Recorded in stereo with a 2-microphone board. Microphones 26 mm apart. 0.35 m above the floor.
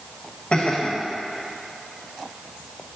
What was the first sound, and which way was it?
Laughter, 45° left (ahead or behind).